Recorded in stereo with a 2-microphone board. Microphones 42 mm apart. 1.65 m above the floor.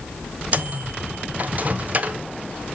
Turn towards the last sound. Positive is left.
turn(degrees=-35)  # may be behind; listen again after turning